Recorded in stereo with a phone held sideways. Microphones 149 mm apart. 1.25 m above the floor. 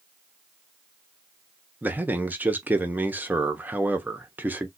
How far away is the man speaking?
About 0.7 m.